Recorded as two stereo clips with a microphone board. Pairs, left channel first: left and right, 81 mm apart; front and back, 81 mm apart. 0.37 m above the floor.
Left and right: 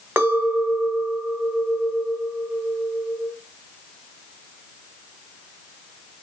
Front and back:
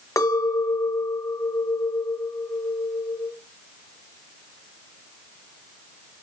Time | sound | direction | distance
0.2 | a clink | 35° right | 1.0 m